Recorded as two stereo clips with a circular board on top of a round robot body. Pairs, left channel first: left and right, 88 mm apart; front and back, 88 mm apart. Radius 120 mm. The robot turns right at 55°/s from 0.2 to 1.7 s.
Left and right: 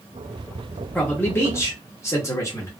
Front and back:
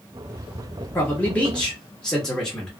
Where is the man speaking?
35° left, 1.3 m; by 2.7 s 80° left, 1.3 m.